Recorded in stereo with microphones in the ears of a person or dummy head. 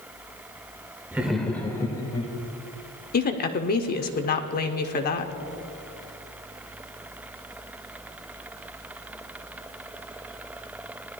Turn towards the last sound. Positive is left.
turn(degrees=45)  # may be behind; listen again after turning